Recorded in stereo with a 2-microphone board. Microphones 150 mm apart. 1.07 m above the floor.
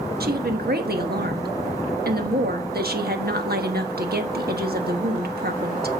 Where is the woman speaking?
85° right, 1.3 m.